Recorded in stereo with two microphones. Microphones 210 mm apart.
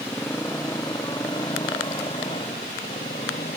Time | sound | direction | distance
0.0 | a motorcycle | 10° left (ahead or behind) | ?